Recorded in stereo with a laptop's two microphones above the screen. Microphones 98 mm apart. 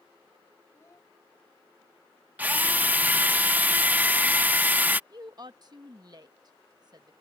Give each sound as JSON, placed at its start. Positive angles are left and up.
{"t": 0.7, "sound": "a child speaking", "side_deg": 25}
{"t": 2.4, "sound": "a drill", "side_deg": -20}
{"t": 5.1, "sound": "a woman speaking", "side_deg": -40}